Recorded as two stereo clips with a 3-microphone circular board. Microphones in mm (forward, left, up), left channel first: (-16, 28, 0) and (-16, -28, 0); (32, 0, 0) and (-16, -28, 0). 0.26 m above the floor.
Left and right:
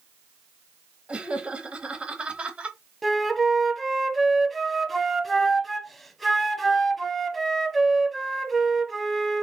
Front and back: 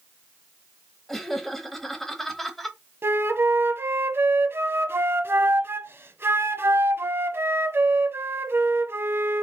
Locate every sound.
1.1 s laughter: 50° right, 1.0 m
3.0 s a flute: 175° left, 0.7 m